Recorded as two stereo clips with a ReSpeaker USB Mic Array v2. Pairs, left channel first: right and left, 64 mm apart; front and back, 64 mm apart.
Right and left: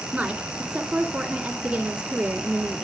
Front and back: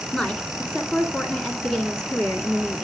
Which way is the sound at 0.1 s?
55° left.